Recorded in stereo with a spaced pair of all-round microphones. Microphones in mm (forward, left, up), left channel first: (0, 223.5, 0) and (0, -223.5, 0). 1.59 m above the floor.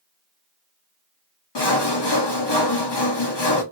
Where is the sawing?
65° left (ahead or behind), 1.0 m.